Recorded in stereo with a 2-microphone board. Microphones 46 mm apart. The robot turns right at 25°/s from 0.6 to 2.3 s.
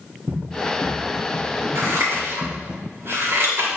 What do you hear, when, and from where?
0.3 s running footsteps: 45° right (ahead or behind), 2.5 m; by 2.8 s 25° right (ahead or behind), 2.0 m
1.8 s scissors: 75° right (ahead or behind), 3.5 m; by 3.7 s 65° right (ahead or behind), 3.5 m